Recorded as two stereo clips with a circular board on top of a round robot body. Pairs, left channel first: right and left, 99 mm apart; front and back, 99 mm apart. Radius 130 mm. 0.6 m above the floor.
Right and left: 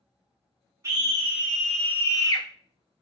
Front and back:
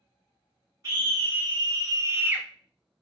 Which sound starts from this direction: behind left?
A scream, at 0.8 s.